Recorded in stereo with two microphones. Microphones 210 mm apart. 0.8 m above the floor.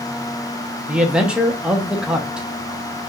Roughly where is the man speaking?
Centre.